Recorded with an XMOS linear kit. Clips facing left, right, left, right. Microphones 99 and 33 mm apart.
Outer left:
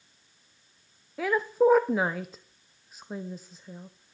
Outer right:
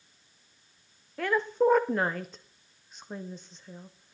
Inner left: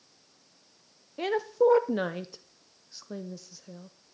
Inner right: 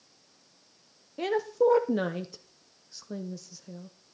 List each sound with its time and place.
1.2 s a woman speaking: 5° left (ahead or behind), 0.6 m